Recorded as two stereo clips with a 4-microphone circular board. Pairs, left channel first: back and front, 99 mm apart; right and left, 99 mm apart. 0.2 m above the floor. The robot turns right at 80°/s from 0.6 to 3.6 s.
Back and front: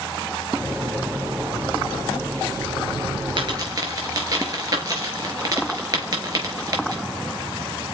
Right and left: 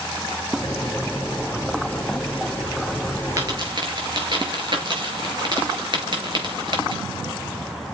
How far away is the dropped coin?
About 5 m.